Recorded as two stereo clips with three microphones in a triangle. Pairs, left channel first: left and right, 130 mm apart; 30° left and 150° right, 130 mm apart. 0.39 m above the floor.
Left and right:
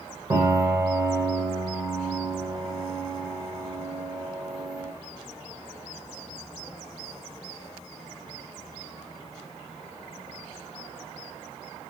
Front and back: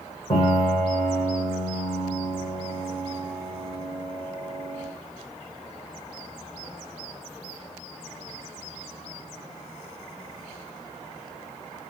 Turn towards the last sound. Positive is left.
turn(degrees=-15)